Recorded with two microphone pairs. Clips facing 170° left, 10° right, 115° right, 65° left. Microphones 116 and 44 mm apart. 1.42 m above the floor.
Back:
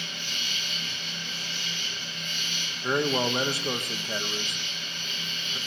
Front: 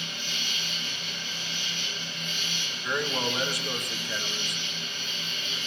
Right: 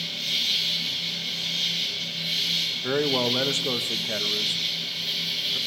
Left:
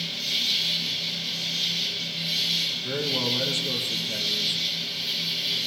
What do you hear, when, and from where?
0.0 s an insect: 170° right, 4 m
2.8 s a man speaking: 130° right, 1.0 m